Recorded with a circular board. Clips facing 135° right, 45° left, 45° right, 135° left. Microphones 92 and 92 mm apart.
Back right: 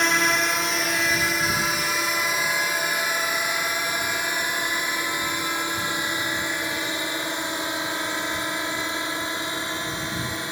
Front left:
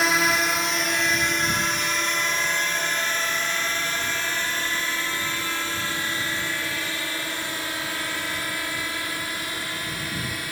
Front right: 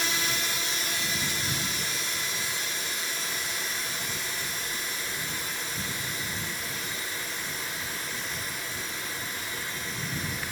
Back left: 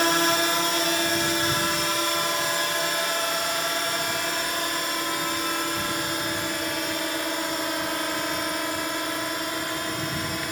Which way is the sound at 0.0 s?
130° left.